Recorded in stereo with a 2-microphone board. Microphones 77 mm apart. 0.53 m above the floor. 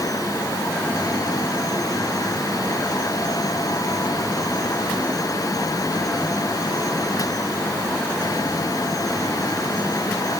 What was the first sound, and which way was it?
Only background noise.